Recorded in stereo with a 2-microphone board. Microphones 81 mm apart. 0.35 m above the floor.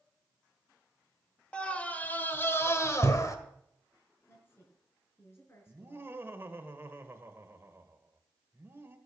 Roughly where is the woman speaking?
Left.